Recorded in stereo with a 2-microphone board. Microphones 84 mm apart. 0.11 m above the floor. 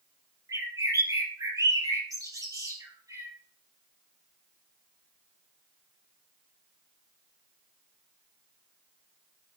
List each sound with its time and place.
0.5 s a bird: 40° right (ahead or behind), 3.5 m